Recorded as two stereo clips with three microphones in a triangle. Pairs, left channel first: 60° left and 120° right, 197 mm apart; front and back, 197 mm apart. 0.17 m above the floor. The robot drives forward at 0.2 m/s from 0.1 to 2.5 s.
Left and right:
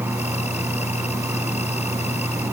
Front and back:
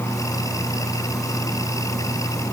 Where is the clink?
No clink in this recording.